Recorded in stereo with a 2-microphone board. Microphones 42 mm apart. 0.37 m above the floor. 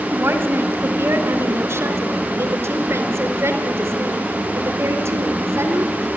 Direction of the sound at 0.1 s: 65° right (ahead or behind).